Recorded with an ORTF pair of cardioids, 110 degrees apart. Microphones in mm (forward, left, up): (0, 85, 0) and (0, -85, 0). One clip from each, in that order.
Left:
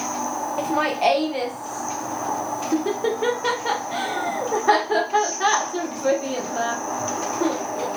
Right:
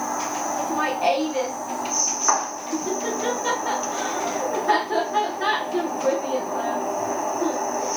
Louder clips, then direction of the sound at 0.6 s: Left 3 dB; 45° left.